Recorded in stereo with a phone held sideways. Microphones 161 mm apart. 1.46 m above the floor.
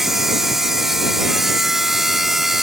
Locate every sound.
0.0 s a machine running: centre (ahead or behind)